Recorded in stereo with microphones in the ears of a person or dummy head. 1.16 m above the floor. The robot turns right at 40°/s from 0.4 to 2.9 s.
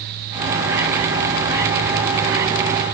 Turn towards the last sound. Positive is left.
No sound to turn to.